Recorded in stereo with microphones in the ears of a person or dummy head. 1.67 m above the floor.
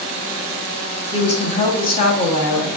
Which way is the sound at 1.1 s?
25° left (ahead or behind).